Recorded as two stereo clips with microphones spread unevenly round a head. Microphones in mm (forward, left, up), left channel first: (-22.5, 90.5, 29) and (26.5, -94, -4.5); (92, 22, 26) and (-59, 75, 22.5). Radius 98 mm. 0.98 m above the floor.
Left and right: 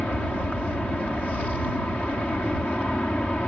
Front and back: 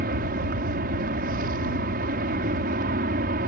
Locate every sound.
0.0 s an aircraft: 170° right